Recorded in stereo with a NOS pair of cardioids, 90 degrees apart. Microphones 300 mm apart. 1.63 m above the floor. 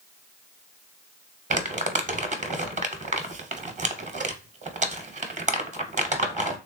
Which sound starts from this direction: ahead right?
Crumpling, at 1.5 s.